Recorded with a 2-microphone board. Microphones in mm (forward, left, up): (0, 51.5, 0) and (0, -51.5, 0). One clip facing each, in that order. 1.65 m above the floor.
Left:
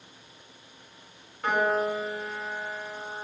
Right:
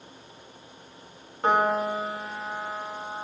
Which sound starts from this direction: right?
A piano, at 1.4 s.